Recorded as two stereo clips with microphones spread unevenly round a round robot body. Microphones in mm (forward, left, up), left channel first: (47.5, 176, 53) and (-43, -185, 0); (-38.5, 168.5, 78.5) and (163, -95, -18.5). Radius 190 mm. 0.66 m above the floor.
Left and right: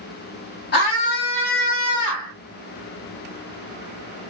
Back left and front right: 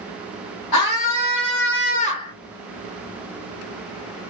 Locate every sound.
0.7 s a scream: 135° left, 0.9 m; by 2.3 s 35° left, 0.9 m